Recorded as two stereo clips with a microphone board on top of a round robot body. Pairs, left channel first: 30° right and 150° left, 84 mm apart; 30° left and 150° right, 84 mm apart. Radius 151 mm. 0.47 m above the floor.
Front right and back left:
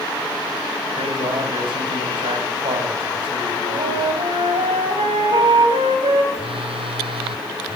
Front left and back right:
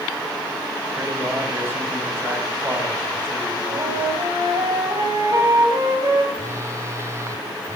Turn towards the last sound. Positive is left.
turn(degrees=150)